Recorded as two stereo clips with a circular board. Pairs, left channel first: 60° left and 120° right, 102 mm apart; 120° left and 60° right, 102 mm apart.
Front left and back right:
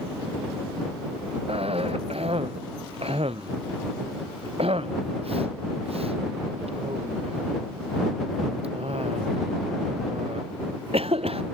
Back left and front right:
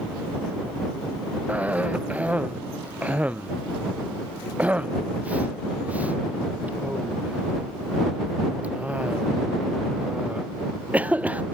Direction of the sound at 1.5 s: 135° right.